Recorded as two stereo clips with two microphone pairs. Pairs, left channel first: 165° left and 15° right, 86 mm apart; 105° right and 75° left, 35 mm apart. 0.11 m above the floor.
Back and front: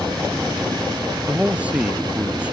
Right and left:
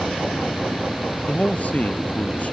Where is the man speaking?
85° right.